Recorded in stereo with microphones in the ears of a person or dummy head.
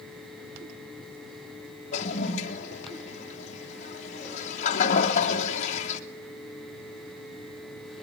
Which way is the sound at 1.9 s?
40° left (ahead or behind).